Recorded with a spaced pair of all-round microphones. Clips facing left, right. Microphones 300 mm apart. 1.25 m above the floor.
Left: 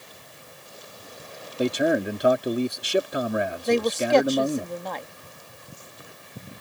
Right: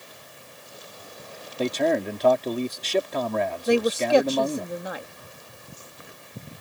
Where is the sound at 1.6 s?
15° left (ahead or behind).